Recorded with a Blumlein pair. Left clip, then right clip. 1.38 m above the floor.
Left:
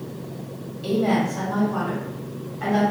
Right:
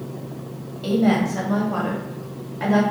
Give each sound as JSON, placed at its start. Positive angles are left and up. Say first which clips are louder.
{"t": 0.8, "sound": "a woman speaking", "louder": "right 1 dB", "azimuth_deg": -5, "distance_m": 1.1}